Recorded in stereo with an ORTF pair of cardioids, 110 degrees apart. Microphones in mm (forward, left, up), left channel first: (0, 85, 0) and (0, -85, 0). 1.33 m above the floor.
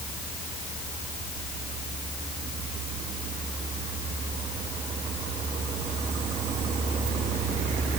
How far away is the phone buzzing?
No phone buzzing in this recording.